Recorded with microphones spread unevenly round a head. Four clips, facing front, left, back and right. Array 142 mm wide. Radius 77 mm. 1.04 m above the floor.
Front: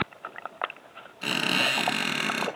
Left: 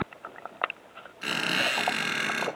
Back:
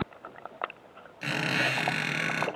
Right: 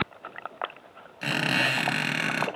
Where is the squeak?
110° right, 2 m.